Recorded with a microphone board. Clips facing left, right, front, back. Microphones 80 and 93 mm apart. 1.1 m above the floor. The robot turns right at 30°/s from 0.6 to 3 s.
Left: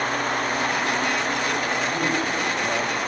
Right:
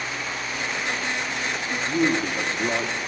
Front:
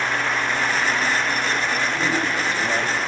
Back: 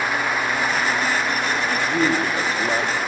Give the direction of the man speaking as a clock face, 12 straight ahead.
5 o'clock.